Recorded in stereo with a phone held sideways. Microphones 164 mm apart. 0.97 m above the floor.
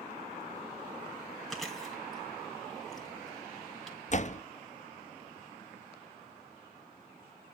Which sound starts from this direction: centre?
Chewing, at 1.5 s.